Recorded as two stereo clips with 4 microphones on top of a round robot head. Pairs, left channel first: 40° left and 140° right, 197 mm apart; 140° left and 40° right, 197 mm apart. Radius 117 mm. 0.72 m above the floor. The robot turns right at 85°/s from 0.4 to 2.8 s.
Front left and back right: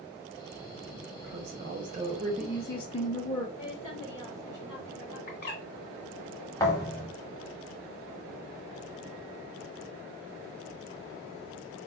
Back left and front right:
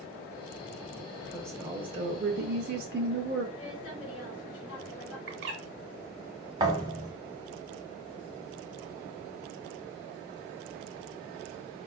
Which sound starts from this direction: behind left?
A woman speaking, at 3.6 s.